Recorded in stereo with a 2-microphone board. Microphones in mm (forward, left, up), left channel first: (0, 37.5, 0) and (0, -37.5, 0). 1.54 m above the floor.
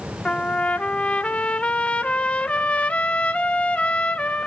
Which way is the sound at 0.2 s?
15° left (ahead or behind).